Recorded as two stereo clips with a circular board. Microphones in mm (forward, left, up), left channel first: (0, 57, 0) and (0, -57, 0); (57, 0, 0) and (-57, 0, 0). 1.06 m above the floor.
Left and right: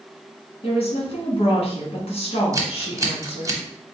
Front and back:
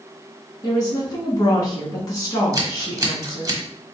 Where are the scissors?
135° right, 0.9 m.